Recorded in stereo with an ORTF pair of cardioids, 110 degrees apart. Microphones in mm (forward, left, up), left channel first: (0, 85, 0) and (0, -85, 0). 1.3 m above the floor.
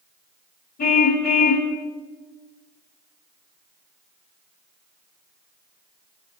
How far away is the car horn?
About 3 m.